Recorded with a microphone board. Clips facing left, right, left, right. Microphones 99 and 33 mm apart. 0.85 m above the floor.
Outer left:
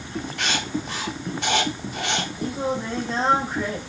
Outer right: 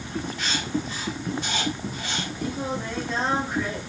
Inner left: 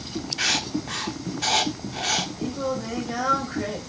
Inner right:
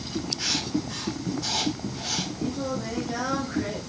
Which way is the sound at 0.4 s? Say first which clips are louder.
Outer left 2 dB, inner left 5 dB; 70° left (ahead or behind).